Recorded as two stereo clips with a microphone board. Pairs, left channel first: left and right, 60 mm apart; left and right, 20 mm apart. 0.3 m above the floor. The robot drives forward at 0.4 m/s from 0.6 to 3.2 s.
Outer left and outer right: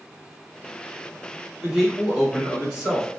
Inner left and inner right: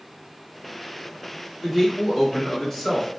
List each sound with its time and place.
1.6 s a man speaking: 5° right (ahead or behind), 0.9 m